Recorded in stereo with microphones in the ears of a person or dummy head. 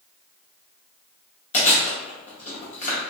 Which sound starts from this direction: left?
Chewing, at 1.5 s.